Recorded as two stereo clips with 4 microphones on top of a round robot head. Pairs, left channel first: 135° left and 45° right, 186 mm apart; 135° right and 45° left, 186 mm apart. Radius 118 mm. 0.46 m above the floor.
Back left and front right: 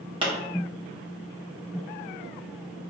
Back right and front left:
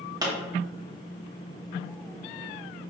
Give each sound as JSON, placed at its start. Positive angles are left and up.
{"t": 0.2, "sound": "a pop", "azimuth_deg": -5, "distance_m": 1.3}